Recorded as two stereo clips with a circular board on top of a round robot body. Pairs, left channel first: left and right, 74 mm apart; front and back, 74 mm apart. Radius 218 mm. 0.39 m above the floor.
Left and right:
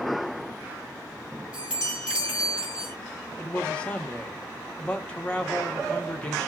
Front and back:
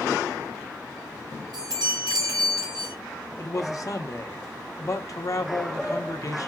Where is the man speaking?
20° left, 1.4 m.